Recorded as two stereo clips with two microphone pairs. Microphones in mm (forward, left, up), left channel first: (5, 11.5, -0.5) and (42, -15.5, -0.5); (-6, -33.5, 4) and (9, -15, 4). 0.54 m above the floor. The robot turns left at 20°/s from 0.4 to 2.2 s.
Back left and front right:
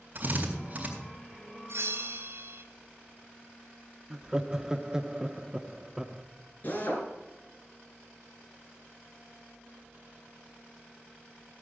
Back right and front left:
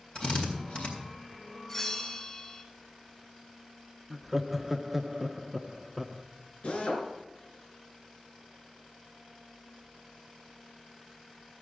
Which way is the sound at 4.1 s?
25° right.